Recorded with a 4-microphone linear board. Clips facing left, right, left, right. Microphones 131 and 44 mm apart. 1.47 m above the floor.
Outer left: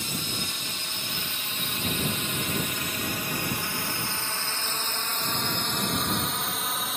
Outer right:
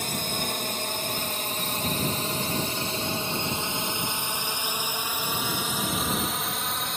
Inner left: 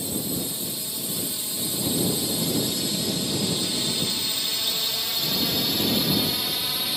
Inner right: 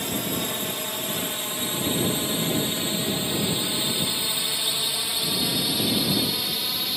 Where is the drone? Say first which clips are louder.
Outer right 4 dB, inner right 2 dB; 55° right (ahead or behind); by 7.0 s 5° left (ahead or behind).